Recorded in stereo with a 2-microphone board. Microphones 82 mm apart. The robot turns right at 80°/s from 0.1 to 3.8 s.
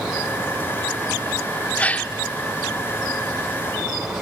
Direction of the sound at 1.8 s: 15° left (ahead or behind).